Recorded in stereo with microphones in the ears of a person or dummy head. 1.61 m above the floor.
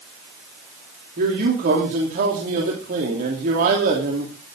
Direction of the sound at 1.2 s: 55° right (ahead or behind).